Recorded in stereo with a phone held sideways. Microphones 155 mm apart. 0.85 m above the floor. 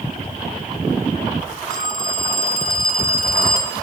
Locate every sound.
1.7 s a phone ringing: 55° right (ahead or behind), 5.5 m